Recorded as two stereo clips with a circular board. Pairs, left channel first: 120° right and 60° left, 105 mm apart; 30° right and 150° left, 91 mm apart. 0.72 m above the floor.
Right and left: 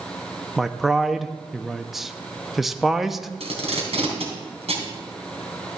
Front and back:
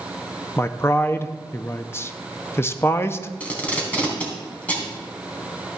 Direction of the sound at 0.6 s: 25° right.